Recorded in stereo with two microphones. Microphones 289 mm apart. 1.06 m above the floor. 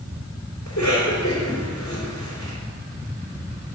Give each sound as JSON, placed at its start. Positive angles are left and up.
{"t": 0.7, "sound": "a cough", "side_deg": 80, "distance_m": 3.0}